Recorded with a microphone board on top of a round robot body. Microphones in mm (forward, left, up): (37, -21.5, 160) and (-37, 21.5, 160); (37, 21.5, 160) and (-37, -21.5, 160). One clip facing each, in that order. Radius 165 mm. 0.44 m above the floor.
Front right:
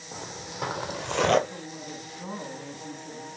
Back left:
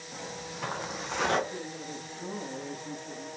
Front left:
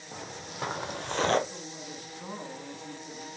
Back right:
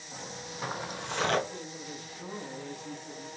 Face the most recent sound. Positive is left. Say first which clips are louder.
# even, back right 1 dB
turn(degrees=-25)